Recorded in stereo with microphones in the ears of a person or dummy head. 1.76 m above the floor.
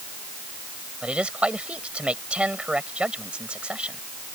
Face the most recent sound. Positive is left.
turn(degrees=-5)  # may be behind; listen again after turning